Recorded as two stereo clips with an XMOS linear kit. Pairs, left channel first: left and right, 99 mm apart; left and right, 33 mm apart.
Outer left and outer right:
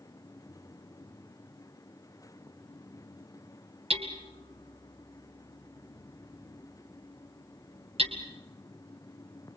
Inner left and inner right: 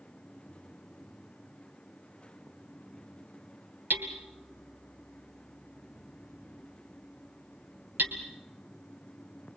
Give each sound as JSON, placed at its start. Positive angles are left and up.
{"t": 3.9, "sound": "hammering", "side_deg": -85, "distance_m": 2.0}